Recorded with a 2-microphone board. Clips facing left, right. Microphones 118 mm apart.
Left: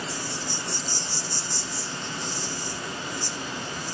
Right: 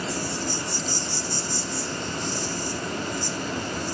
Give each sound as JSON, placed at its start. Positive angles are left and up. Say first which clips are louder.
{"t": 0.0, "sound": "an insect", "louder": "right 4 dB", "side_deg": -55, "distance_m": 0.8}